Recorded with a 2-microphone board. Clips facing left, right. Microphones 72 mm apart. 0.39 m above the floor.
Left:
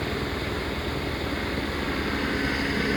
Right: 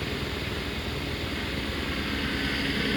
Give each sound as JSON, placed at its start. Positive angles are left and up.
{"t": 0.0, "sound": "a helicopter", "side_deg": 20}